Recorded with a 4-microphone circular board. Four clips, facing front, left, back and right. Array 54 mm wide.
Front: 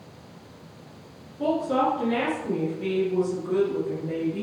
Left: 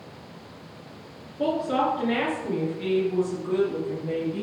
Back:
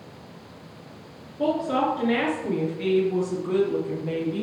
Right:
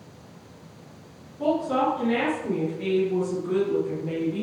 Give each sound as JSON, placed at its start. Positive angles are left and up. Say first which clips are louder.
{"t": 1.4, "sound": "a woman speaking", "louder": "right 1 dB, even", "azimuth_deg": 135, "distance_m": 2.5}